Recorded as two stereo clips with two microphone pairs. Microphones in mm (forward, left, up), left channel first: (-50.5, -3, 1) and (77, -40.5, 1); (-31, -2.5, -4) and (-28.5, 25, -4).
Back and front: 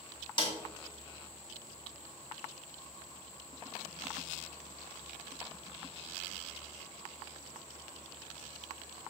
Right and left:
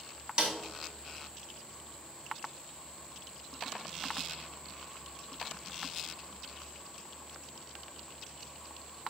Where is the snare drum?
125° left, 2 m.